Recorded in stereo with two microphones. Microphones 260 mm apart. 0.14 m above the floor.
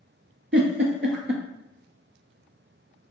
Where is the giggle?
45° right (ahead or behind), 0.7 m.